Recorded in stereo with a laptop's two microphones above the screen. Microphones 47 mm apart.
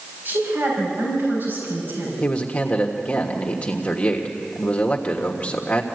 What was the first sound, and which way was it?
A woman speaking, 50° right (ahead or behind).